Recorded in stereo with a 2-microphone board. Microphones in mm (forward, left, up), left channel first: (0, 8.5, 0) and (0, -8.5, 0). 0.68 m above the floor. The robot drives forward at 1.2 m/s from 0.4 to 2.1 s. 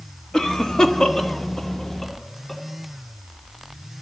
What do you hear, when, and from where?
0.3 s a cough: 40° left (ahead or behind), 1.3 m; by 2.6 s 25° left (ahead or behind), 1.8 m